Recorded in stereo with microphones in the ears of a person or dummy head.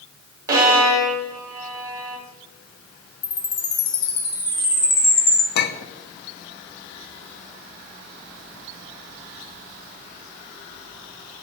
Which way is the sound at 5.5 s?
55° left (ahead or behind).